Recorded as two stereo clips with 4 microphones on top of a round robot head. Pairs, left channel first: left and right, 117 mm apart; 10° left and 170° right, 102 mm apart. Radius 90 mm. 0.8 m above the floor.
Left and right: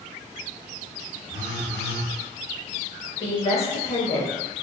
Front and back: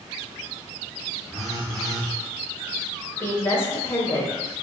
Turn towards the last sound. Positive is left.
turn(degrees=75)